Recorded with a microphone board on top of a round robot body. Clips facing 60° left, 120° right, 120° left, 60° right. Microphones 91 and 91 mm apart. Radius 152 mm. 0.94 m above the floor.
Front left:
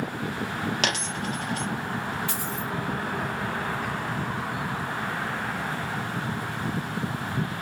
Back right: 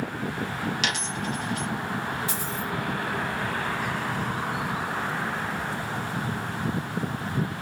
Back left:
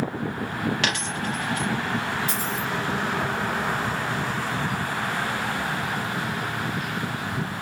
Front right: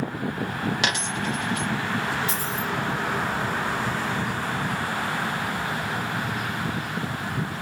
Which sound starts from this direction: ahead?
A dropped coin, at 0.8 s.